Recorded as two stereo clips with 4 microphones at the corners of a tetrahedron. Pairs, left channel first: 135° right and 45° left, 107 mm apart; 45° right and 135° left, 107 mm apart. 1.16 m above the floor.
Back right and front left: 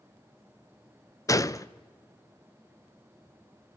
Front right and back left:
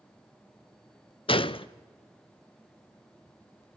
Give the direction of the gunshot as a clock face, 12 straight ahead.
3 o'clock.